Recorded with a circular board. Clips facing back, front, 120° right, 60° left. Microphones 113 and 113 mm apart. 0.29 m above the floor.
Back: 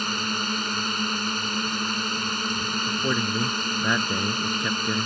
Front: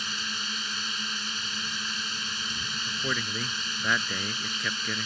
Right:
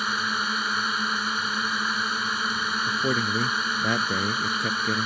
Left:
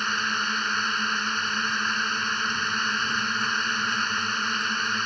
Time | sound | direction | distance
0.0 | a drone | 160° left | ?
2.9 | a man speaking | 115° right | ?